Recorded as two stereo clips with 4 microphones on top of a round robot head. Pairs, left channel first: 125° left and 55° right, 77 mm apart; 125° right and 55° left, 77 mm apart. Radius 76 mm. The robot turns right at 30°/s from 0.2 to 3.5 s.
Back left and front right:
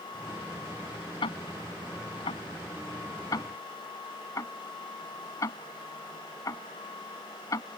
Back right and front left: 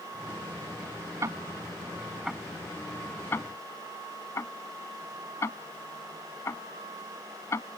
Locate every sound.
1.2 s ticking: 105° left; by 7.8 s 175° left